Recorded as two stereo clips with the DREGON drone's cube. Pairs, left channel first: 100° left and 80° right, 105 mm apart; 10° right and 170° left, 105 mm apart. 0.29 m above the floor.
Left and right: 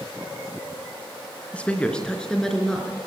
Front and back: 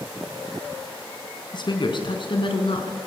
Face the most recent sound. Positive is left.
turn(degrees=15)